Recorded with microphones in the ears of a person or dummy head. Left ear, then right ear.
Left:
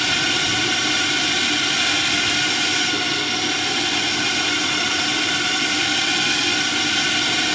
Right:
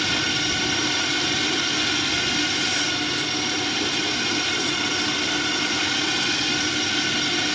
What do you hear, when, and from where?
0.0 s a drone: 30° left (ahead or behind)